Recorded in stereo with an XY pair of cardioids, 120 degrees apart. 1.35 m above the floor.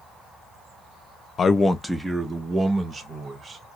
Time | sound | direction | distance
1.4 | a man speaking | 35° left | 0.5 m